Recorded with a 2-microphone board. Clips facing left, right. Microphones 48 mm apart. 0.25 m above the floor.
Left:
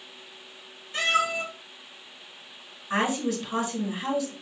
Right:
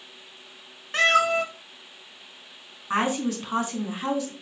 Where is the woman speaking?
35° right (ahead or behind), 3 m.